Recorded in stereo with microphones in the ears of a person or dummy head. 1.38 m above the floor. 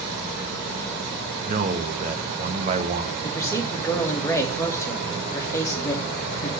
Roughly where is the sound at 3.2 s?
Centre.